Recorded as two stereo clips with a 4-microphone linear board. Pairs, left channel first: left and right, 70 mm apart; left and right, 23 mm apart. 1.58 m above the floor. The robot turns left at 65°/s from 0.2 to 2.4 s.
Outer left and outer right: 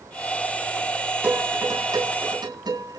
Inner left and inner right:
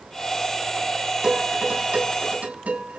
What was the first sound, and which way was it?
Dishes clattering, 20° right (ahead or behind).